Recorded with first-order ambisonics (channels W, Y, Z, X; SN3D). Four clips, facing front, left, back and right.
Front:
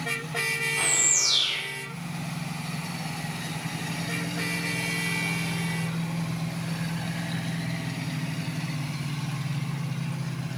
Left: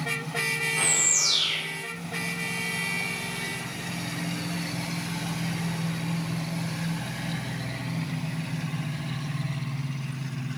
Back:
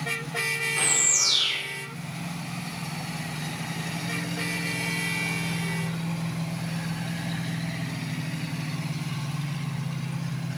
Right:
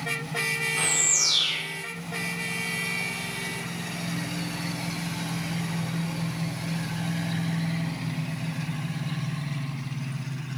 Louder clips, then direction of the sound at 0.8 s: Even, back 1 dB; straight behind.